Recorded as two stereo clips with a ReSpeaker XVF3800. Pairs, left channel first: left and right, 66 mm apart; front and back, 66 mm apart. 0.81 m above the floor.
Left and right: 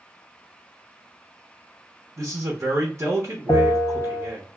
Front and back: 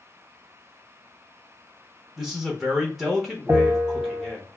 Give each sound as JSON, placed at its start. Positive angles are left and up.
{"t": 2.2, "sound": "a man speaking", "azimuth_deg": -90, "distance_m": 0.9}
{"t": 3.5, "sound": "a bell", "azimuth_deg": 125, "distance_m": 0.8}